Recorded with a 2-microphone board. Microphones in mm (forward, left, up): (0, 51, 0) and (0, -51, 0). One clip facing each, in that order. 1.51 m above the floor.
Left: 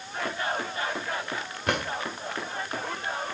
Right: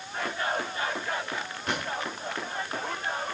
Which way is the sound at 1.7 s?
65° left (ahead or behind).